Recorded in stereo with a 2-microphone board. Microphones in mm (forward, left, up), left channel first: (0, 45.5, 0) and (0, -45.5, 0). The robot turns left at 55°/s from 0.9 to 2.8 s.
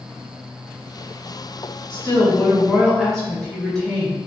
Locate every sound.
1.9 s a woman speaking: 55° left, 1.1 m; by 4.2 s 5° left, 1.1 m